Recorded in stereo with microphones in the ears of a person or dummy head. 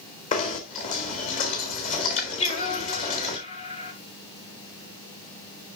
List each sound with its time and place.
0.3 s knocking: 40° left (ahead or behind), 2.0 m
2.4 s singing: 40° left (ahead or behind), 2.5 m